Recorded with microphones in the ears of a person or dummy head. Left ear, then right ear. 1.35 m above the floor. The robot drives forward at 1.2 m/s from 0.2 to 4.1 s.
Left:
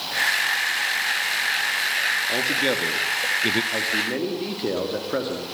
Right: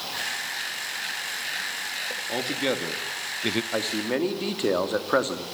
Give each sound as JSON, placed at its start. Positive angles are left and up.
{"t": 2.3, "sound": "a man speaking", "side_deg": 0, "distance_m": 2.5}
{"t": 3.7, "sound": "a man speaking", "side_deg": -45, "distance_m": 2.0}